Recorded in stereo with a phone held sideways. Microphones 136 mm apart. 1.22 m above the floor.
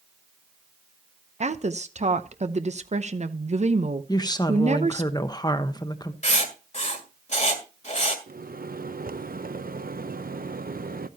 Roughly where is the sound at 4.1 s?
Left.